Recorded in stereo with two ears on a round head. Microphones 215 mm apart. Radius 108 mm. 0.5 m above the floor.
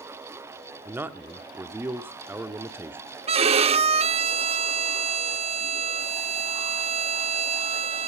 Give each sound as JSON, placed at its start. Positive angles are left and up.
{"t": 0.8, "sound": "a man speaking", "side_deg": -10, "distance_m": 0.8}
{"t": 3.3, "sound": "a violin", "side_deg": -25, "distance_m": 0.7}